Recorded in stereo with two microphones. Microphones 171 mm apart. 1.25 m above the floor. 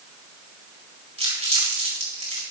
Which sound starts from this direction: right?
Crumpling, at 1.2 s.